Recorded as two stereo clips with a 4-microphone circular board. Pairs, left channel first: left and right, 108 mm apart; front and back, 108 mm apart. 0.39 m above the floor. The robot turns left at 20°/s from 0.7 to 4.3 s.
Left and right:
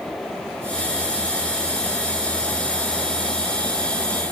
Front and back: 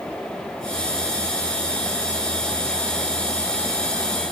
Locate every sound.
Only background noise.